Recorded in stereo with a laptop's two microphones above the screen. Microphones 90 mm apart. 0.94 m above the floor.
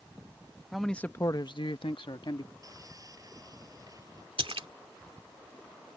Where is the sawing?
40° right (ahead or behind).